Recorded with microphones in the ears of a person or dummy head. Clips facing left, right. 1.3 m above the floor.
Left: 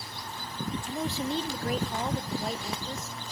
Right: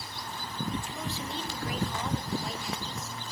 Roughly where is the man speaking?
Left.